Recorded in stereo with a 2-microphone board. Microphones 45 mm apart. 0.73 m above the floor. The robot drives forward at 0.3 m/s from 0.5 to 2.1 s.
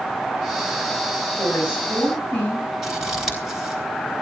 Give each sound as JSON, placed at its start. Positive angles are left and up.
{"t": 1.4, "sound": "a woman speaking", "side_deg": 35, "distance_m": 4.5}
{"t": 2.8, "sound": "scissors", "side_deg": -5, "distance_m": 4.0}